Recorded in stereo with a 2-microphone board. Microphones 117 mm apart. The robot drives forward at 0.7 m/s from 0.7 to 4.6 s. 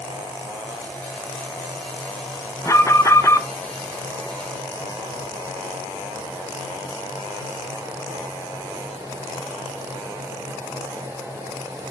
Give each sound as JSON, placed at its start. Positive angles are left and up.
{"t": 2.6, "sound": "an alarm", "side_deg": 25, "distance_m": 0.8}